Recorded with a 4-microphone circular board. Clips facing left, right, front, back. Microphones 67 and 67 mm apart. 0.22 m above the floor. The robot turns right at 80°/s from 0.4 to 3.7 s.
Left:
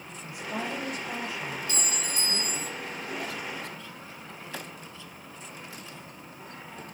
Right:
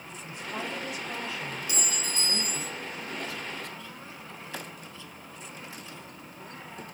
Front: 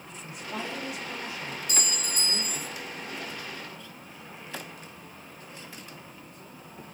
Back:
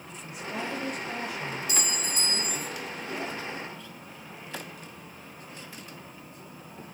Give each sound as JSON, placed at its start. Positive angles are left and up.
{"t": 0.2, "sound": "a woman speaking", "azimuth_deg": 95, "distance_m": 6.0}
{"t": 1.7, "sound": "a clink", "azimuth_deg": -20, "distance_m": 1.3}